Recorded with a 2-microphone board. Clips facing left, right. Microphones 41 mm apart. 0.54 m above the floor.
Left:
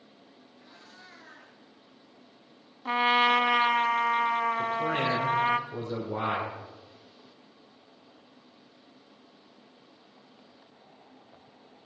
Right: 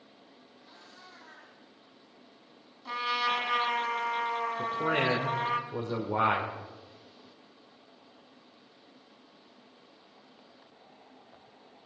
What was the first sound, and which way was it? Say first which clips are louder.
A cat meowing: left 1 dB; 80° left.